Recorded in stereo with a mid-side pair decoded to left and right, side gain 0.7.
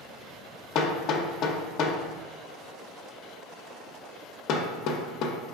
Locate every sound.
0.8 s hammering: 55° left, 0.5 m